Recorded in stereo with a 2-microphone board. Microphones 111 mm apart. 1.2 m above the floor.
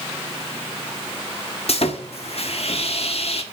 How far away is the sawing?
About 1.4 m.